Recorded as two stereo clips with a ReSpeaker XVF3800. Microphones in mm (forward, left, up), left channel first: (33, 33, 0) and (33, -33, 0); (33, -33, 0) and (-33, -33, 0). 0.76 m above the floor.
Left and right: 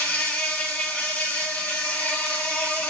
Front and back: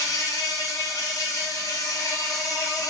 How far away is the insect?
About 0.8 m.